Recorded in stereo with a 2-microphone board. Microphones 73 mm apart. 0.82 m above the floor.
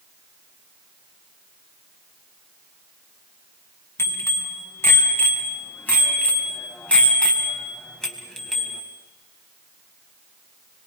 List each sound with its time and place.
4.0 s a bicycle bell: 35° left (ahead or behind), 5 m; by 8.8 s centre (ahead or behind), 4 m